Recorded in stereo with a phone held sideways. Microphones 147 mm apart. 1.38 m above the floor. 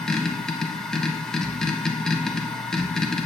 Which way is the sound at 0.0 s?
5° left (ahead or behind).